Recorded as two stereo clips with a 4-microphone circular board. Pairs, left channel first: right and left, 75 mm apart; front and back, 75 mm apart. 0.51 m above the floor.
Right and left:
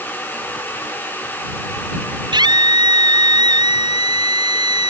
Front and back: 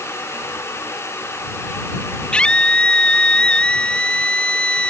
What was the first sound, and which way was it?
A scream, 75° left.